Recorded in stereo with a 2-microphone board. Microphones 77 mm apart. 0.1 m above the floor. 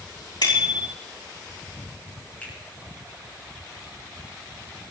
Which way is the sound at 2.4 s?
20° left (ahead or behind).